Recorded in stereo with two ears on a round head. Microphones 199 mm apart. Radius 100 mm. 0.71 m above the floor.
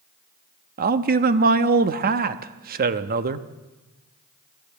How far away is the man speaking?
About 0.7 m.